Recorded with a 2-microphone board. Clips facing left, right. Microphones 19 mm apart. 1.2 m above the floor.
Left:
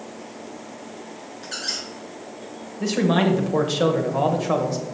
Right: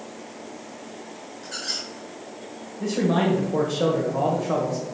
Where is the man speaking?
60° left (ahead or behind), 1.3 m.